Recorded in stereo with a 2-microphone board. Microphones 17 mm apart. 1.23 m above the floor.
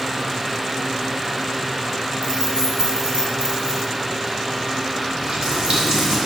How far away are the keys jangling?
About 3.5 m.